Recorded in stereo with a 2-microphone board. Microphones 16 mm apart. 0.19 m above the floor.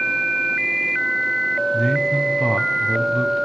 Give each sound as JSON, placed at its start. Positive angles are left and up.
{"t": 1.7, "sound": "a man speaking", "side_deg": 5, "distance_m": 1.5}